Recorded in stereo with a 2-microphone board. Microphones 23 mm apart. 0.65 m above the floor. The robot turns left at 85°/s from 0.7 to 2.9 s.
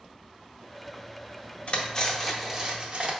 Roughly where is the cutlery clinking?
Ahead left.